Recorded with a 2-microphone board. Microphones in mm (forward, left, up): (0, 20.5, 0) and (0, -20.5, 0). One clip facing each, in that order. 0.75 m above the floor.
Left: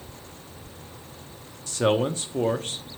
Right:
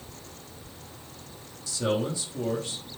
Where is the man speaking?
45° left (ahead or behind), 1.0 m.